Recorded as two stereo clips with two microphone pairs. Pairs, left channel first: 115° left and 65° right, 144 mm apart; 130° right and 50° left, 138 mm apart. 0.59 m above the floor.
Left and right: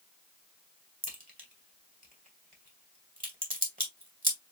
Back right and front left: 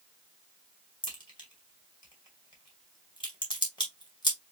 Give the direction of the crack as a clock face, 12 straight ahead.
2 o'clock.